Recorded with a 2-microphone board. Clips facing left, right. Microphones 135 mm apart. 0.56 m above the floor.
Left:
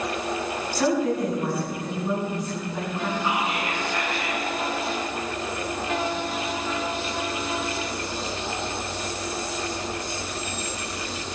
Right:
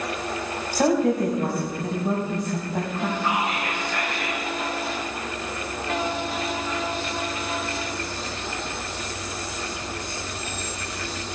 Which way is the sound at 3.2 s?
65° right (ahead or behind).